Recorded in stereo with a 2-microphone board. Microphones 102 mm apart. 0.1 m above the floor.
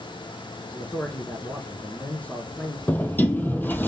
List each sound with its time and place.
0.7 s a man speaking: 15° left (ahead or behind), 1.4 m
2.9 s a sliding door: 20° left (ahead or behind), 0.6 m